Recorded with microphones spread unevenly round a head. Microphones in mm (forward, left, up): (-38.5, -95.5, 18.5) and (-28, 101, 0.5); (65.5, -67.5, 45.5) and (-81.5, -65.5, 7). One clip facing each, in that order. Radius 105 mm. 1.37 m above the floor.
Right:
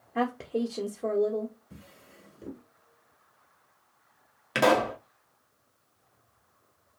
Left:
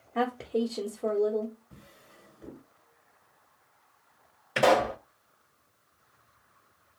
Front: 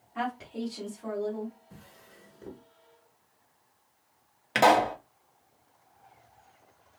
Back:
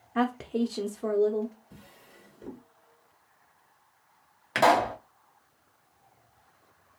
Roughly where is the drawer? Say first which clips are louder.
Right 3 dB, back 1 dB; right.